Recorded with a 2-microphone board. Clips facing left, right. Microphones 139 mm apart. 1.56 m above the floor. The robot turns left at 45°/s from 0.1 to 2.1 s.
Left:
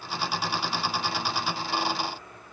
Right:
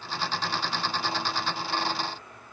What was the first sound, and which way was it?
Only background noise.